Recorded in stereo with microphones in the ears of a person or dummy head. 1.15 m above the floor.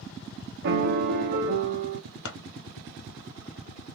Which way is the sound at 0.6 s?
60° right (ahead or behind).